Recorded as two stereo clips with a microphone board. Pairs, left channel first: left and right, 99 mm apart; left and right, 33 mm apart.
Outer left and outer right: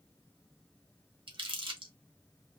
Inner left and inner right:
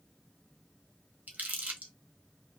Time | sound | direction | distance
1.3 | crumpling | 55° right (ahead or behind) | 1.0 m